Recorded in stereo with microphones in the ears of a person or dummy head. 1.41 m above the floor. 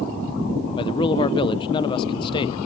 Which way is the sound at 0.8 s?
30° left (ahead or behind).